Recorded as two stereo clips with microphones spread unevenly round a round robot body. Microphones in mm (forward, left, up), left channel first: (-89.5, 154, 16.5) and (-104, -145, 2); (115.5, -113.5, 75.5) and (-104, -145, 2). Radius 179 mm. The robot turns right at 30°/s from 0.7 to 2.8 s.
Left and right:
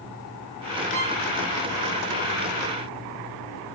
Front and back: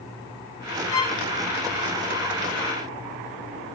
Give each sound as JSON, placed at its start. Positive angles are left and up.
{"t": 0.9, "sound": "a violin", "azimuth_deg": -65, "distance_m": 5.0}